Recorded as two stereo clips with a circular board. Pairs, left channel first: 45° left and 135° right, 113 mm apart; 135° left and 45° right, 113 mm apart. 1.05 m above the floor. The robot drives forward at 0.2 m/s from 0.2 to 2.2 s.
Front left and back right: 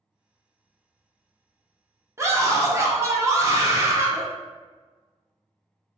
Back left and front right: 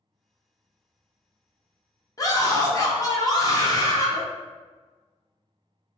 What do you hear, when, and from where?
2.2 s a scream: 175° left, 0.7 m